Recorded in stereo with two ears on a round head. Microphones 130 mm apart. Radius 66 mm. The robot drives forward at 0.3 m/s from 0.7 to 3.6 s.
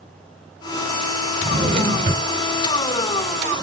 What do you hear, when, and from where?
1.4 s a drawer: 50° right (ahead or behind), 3 m; by 3.4 s 45° right (ahead or behind), 3.5 m